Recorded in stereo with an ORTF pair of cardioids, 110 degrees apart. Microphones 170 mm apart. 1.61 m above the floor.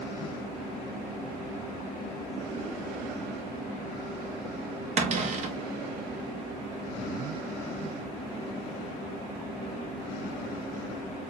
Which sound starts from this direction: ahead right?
A cupboard door, at 5.0 s.